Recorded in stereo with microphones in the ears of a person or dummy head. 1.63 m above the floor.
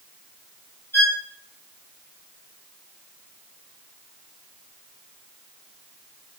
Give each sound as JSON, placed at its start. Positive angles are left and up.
{"t": 0.9, "sound": "a violin", "side_deg": 15, "distance_m": 1.6}